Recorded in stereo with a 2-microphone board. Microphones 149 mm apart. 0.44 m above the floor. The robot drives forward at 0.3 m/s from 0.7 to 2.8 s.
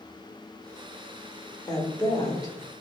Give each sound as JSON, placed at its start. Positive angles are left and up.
{"t": 1.7, "sound": "a woman speaking", "side_deg": 25, "distance_m": 1.0}